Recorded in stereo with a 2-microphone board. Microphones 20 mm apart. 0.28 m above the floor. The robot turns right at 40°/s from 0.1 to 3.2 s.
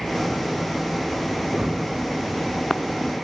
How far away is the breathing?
About 6.5 m.